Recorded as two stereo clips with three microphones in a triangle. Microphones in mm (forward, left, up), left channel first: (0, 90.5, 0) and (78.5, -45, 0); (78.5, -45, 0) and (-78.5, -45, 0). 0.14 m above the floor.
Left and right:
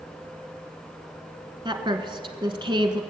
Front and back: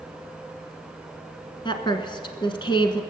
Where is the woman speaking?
30° right, 1.2 m.